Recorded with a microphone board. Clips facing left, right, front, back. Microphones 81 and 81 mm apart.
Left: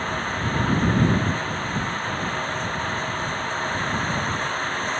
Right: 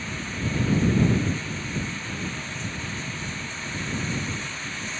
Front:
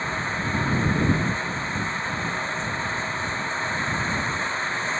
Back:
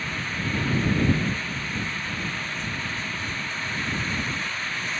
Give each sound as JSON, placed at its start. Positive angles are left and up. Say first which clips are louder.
{"t": 0.0, "sound": "running water", "louder": "left 6 dB, front 3 dB", "azimuth_deg": 60}